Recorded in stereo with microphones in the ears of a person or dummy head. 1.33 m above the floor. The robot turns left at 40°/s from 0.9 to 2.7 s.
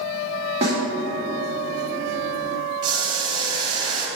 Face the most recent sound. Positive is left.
turn(degrees=-30)  # may be behind; listen again after turning